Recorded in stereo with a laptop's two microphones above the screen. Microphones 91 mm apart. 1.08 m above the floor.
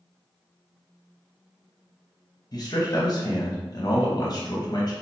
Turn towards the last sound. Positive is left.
turn(degrees=45)  # may be behind; listen again after turning